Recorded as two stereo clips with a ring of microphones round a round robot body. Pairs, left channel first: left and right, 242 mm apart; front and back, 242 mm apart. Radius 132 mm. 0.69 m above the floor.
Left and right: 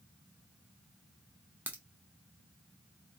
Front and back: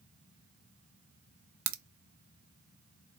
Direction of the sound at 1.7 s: 175° right.